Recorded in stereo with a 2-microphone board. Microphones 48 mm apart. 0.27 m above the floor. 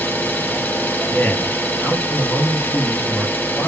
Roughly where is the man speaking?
Left.